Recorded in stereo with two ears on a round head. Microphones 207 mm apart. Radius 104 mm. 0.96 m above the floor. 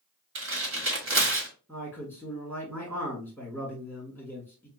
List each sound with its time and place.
0.3 s tearing paper: 60° right (ahead or behind), 1.2 m
1.7 s a man speaking: 10° right (ahead or behind), 1.2 m